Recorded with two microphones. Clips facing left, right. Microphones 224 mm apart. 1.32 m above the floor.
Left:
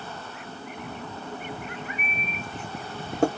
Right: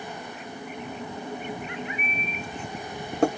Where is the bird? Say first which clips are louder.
Right 2 dB; 40° left (ahead or behind), 1.0 m.